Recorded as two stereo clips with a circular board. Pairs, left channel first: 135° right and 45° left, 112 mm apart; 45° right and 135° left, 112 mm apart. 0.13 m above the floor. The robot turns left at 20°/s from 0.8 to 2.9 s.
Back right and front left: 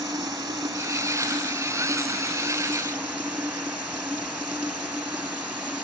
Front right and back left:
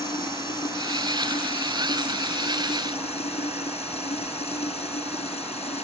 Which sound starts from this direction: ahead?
Running water, at 0.0 s.